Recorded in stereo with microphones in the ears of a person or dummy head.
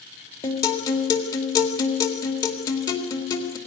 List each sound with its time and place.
0.4 s a guitar: 20° left (ahead or behind), 2 m